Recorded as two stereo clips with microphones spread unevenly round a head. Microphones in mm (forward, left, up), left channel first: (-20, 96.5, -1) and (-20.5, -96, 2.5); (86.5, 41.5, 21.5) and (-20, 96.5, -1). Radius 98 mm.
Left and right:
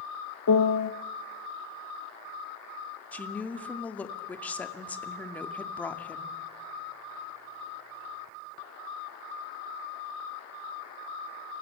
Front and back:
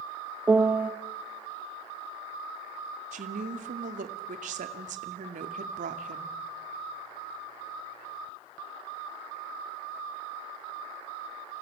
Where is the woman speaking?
170° left, 2.0 m.